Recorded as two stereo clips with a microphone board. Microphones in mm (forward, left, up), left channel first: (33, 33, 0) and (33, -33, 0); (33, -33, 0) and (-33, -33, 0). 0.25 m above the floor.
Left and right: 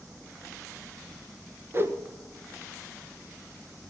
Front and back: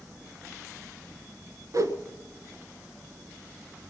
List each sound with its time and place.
1.7 s a whoosh: 145° right, 1.4 m